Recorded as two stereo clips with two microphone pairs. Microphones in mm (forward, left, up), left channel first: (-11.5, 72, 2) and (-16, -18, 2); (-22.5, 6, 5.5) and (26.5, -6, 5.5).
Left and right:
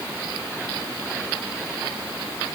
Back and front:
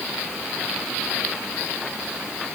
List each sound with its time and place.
Only background noise.